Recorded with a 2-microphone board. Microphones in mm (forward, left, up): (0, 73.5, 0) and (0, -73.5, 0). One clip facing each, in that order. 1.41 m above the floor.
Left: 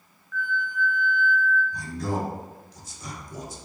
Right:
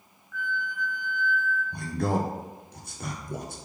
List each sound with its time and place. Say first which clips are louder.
0.3 s a flute: left 3 dB; 15° right (ahead or behind), 0.9 m
1.7 s a man speaking: right 2 dB; 60° right (ahead or behind), 0.6 m